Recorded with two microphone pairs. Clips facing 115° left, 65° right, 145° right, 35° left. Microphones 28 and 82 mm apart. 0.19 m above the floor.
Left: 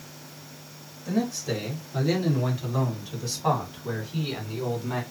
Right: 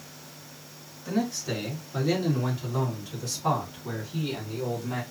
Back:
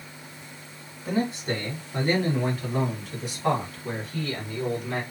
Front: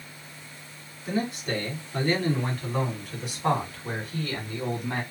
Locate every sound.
1.1 s a man speaking: 145° right, 1.7 m; by 5.0 s 75° left, 1.9 m